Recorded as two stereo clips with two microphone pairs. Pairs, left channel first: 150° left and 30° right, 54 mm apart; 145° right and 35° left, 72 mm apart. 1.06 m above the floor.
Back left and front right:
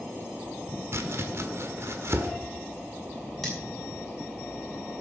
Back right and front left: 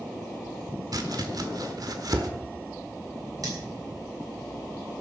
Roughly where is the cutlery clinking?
Ahead left.